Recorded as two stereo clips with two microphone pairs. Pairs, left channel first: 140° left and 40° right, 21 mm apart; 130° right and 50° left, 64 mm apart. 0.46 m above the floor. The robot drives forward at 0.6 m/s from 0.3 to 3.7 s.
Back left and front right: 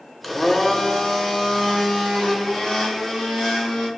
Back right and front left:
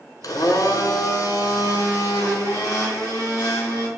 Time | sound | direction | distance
0.2 | a blender | 130° right | 0.7 m